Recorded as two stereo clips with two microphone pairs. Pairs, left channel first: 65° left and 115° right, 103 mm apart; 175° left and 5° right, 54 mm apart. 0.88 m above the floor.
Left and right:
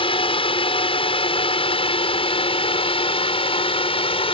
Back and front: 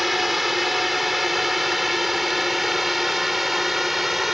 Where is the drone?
80° left.